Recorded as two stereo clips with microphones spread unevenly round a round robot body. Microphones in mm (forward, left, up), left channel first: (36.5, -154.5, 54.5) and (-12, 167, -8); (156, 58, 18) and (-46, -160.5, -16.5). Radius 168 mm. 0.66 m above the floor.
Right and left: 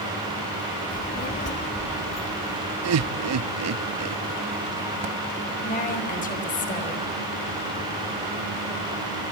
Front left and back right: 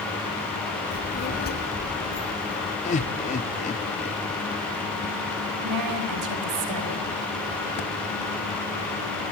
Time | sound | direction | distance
0.9 | a child speaking | 15° right | 1.0 m
2.8 | laughter | 120° left | 0.9 m
5.6 | a woman speaking | 150° right | 3.5 m